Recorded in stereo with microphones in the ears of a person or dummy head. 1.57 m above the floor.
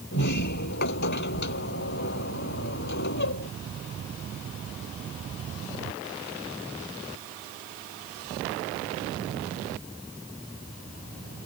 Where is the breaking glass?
No breaking glass in this recording.